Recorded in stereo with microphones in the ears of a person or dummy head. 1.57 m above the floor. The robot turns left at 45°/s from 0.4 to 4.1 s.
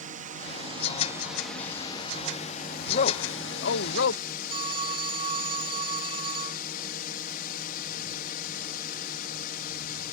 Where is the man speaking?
140° left; by 4.2 s 85° left.